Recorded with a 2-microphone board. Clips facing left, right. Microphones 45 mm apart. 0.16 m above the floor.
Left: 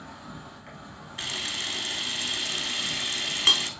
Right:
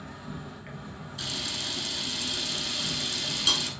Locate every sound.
0.0 s an insect: 20° right (ahead or behind), 1.4 m
1.2 s a camera shutter: 50° left (ahead or behind), 1.0 m